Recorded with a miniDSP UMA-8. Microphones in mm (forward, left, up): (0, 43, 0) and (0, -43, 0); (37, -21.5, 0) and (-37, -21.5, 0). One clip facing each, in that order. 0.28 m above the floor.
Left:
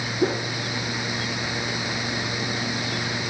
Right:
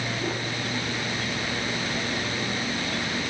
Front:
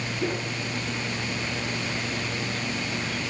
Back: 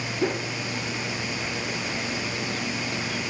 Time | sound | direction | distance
0.2 | a whoosh | 115° left | 1.5 m